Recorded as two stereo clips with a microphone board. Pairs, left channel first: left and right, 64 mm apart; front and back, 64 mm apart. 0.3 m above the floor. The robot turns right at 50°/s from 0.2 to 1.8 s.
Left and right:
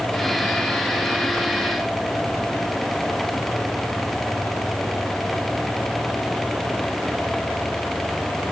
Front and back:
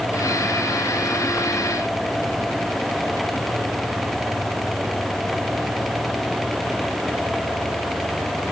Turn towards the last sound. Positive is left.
No sound to turn to.